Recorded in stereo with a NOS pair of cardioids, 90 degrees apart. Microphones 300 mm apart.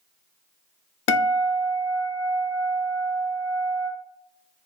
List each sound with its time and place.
1.1 s a guitar: 45° left, 0.5 m